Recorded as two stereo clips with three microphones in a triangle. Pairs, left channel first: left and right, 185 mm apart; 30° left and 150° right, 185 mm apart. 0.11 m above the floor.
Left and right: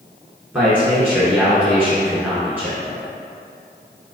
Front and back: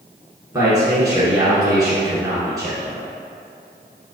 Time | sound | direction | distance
0.5 | a man speaking | 150° right | 1.1 m